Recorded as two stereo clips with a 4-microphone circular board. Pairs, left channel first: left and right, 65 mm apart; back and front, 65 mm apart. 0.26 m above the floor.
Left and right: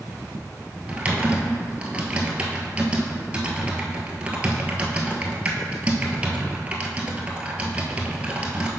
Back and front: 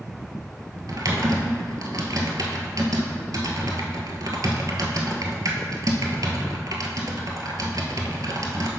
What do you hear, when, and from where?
0.9 s typing on a keyboard: 20° right, 0.9 m